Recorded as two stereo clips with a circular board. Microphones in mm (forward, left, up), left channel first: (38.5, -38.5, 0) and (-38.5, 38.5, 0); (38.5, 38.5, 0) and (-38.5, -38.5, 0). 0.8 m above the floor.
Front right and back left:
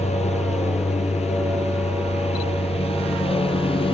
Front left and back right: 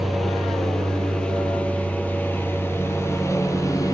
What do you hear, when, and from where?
0.0 s a lawn mower: 45° right; by 3.9 s 15° right